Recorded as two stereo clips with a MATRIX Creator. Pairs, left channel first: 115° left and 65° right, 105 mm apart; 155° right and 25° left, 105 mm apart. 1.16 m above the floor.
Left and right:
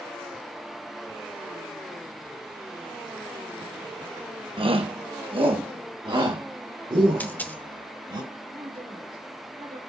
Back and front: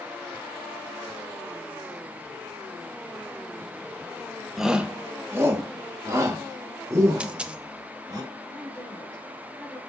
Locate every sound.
4.6 s a shout: 65° right, 0.9 m; by 8.2 s 25° right, 4 m
7.2 s a dropped coin: 80° left, 0.5 m
8.5 s a woman speaking: 80° right, 4 m